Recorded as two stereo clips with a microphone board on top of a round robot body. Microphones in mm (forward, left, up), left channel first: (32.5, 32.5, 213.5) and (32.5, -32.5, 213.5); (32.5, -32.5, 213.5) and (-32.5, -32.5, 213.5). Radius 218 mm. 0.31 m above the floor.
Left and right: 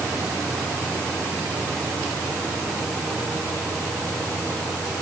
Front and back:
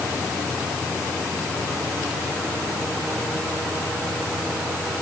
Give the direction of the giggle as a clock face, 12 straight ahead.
No giggle in this recording.